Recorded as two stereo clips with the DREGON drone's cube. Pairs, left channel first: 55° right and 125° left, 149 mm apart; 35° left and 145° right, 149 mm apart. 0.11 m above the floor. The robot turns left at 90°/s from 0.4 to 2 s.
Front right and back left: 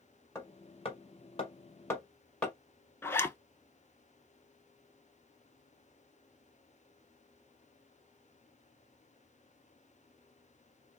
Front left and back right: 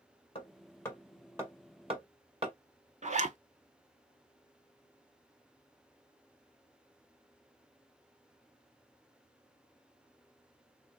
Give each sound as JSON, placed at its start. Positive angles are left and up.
{"t": 0.3, "sound": "hammering", "azimuth_deg": 10, "distance_m": 1.5}
{"t": 3.0, "sound": "a zipper", "azimuth_deg": -125, "distance_m": 0.5}